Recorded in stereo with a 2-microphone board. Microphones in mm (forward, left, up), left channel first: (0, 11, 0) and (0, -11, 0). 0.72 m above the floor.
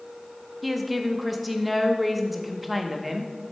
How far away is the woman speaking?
About 0.7 m.